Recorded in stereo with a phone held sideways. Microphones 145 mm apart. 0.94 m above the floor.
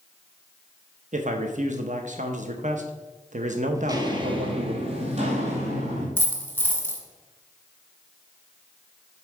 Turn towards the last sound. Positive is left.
turn(degrees=15)  # may be behind; listen again after turning